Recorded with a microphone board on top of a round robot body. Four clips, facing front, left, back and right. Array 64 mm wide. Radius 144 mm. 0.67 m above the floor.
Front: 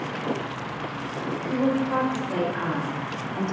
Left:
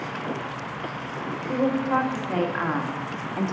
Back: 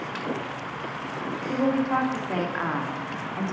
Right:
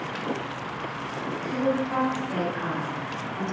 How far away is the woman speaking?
About 2.5 m.